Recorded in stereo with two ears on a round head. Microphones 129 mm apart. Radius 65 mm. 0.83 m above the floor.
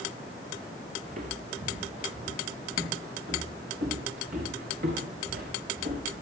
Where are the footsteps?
50° right (ahead or behind), 3.5 m; by 6.2 s 65° right (ahead or behind), 6 m.